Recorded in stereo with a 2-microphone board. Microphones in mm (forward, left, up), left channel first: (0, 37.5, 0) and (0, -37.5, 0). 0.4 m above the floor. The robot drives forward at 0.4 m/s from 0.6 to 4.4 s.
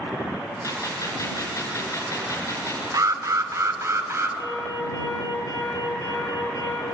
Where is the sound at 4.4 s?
50° left (ahead or behind), 9.5 m.